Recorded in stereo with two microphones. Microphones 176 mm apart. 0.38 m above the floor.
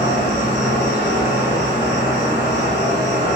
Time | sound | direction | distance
0.0 | an insect | 70° left (ahead or behind) | 1.3 m